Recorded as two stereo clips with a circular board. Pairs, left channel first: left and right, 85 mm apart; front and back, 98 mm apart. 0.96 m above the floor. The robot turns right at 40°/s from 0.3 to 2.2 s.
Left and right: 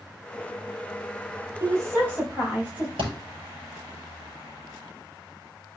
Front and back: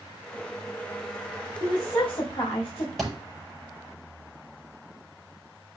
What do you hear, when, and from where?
1.6 s a woman speaking: 45° right, 5 m; by 2.9 s 20° right, 5 m
3.0 s a thud: 90° right, 6.5 m